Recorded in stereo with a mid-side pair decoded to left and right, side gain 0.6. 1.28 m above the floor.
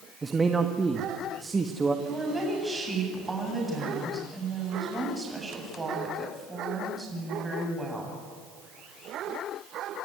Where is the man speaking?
20° right, 1.6 m.